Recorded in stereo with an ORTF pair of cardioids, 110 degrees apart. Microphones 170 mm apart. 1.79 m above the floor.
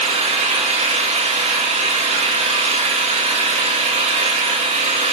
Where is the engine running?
45° right, 2.5 m.